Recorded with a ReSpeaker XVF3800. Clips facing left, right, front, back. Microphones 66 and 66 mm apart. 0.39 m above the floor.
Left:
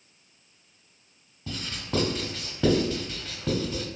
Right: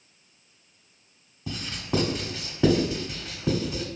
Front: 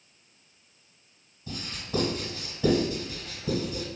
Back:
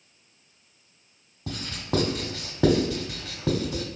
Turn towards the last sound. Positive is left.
turn(degrees=-170)